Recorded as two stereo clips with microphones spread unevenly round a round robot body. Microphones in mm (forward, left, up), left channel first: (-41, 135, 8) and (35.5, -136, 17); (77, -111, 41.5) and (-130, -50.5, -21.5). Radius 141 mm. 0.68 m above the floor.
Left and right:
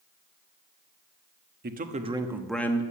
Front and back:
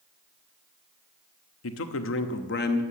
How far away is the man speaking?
About 1.2 m.